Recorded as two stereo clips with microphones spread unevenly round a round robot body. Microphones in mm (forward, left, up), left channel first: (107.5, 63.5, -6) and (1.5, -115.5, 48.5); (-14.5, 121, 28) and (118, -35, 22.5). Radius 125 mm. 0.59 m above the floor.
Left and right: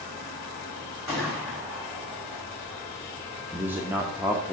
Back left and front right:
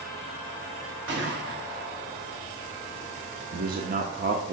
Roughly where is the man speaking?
Ahead right.